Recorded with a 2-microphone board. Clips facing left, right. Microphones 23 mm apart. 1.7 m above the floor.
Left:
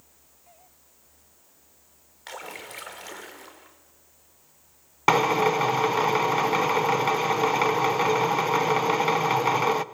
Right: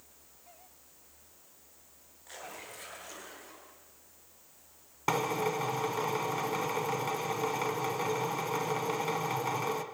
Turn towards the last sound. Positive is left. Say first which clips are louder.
# left 10 dB
turn(degrees=35)  # may be behind; listen again after turning